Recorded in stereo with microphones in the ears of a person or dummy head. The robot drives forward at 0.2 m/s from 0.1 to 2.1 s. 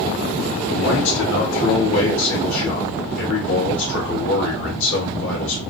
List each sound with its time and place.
0.7 s a man speaking: 75° left (ahead or behind), 1.8 m; by 5.6 s 85° left, 1.7 m